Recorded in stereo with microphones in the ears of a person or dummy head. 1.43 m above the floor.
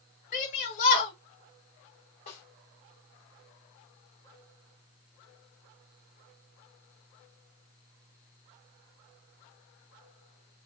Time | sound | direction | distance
0.3 | a shout | 40° left (ahead or behind) | 1.7 m
2.3 | a snare drum | 30° left (ahead or behind) | 1.4 m